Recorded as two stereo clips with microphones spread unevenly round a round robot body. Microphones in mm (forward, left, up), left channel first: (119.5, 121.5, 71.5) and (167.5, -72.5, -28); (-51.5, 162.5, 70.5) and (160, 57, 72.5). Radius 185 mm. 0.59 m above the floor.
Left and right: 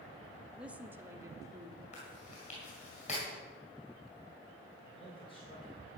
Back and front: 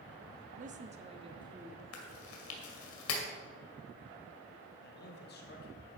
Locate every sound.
0.6 s a woman speaking: 45° right, 1.1 m; by 1.8 s 100° right, 1.3 m
1.9 s chewing: straight behind, 2 m
4.8 s a man speaking: 170° right, 1.7 m